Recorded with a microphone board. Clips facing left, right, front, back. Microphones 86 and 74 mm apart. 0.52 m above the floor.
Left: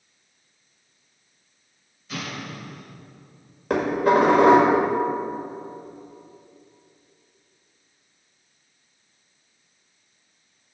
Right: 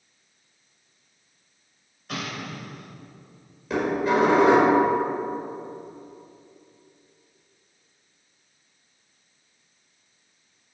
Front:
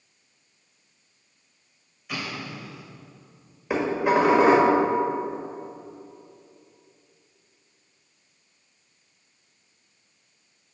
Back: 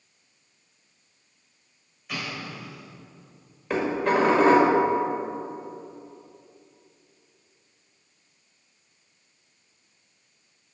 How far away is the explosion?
About 2.5 m.